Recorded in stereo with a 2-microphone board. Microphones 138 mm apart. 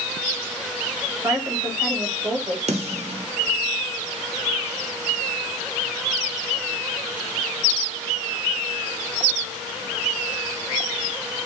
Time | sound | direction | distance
1.2 | a woman speaking | 20° right (ahead or behind) | 1.3 m
2.7 | a snare drum | 55° right (ahead or behind) | 0.9 m